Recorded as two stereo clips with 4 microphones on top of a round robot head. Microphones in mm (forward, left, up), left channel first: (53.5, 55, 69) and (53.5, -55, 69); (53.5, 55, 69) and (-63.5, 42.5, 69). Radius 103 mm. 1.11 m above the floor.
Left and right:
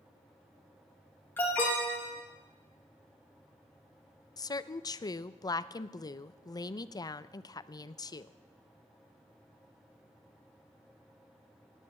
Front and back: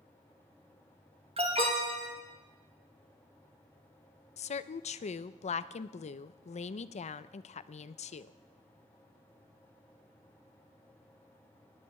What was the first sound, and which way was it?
An alarm, 160° left.